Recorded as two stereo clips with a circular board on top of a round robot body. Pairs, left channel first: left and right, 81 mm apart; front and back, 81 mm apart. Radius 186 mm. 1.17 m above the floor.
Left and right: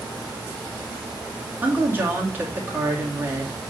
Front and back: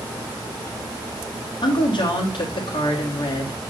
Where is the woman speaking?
20° right, 2.5 m.